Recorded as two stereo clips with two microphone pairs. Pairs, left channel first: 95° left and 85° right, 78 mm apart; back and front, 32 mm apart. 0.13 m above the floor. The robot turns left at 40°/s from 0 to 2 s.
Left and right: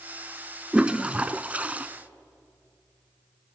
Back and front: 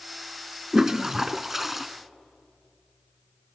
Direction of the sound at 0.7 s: 30° right.